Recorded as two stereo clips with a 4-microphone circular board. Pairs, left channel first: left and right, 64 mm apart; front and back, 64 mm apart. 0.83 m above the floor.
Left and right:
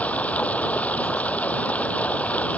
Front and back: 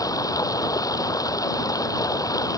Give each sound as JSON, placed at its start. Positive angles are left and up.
{"t": 0.0, "sound": "running water", "azimuth_deg": 20}